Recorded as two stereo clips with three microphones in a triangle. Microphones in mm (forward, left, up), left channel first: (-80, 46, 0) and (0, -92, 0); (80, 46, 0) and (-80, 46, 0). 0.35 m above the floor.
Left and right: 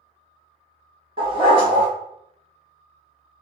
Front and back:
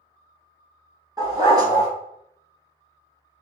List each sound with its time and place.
1.2 s a dog barking: 115° right, 2 m